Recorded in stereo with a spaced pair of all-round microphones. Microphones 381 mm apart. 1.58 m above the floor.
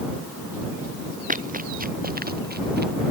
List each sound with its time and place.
1.3 s running footsteps: 20° right (ahead or behind); by 2.9 s 25° right (ahead or behind)